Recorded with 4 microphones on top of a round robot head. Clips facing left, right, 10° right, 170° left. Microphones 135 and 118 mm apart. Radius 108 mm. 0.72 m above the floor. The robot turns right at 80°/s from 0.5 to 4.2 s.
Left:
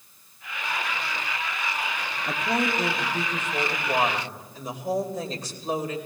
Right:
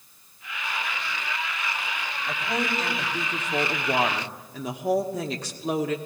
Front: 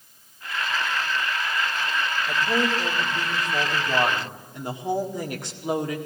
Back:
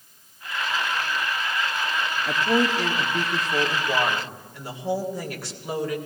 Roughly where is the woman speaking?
Behind left.